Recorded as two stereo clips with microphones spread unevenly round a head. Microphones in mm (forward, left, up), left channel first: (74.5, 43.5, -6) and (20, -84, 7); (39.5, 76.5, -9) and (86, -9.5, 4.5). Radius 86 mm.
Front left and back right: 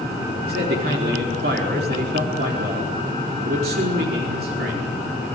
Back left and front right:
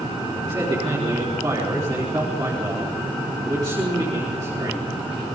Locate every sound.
0.5 s a man speaking: 130° right, 4.5 m